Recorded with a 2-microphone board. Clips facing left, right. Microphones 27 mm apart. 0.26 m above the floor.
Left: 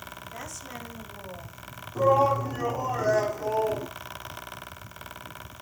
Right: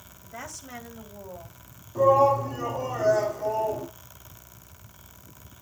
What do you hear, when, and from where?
0.2 s a woman speaking: 10° right (ahead or behind), 1.7 m; by 1.6 s 5° right (ahead or behind), 1.8 m
1.9 s a shout: 10° right (ahead or behind), 9 m